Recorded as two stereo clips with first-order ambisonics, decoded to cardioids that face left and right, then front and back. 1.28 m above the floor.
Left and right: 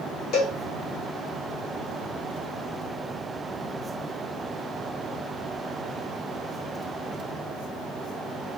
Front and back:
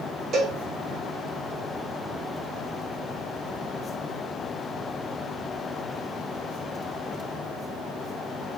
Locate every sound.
0.3 s a cowbell: 125° left, 1.3 m